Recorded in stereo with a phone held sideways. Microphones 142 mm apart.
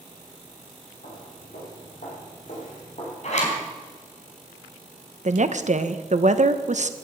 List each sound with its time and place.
1.0 s footsteps: 70° left (ahead or behind), 5.5 m; by 3.1 s 60° left (ahead or behind), 6.5 m
3.2 s a zipper: 55° left (ahead or behind), 3.5 m
5.2 s a woman speaking: 55° right (ahead or behind), 0.9 m